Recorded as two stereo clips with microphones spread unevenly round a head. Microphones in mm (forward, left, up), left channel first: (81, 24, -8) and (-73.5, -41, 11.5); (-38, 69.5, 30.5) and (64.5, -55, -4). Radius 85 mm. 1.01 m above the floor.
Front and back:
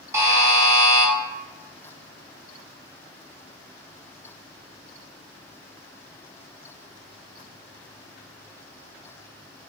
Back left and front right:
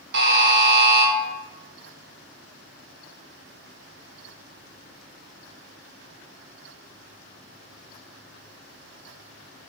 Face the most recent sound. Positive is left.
turn(degrees=-85)